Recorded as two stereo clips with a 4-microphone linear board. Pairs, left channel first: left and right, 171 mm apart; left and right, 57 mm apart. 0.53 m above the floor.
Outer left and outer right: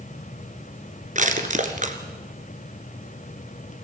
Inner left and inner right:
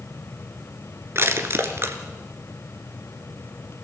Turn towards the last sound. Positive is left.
turn(degrees=-45)  # may be behind; listen again after turning